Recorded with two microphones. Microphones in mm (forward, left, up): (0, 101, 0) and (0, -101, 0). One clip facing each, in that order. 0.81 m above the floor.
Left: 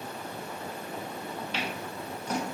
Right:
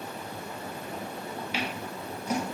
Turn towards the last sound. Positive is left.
turn(degrees=-10)  # may be behind; listen again after turning